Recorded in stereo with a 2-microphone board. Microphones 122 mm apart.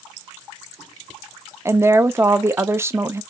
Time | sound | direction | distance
1.6 | a woman speaking | 20° right (ahead or behind) | 0.6 m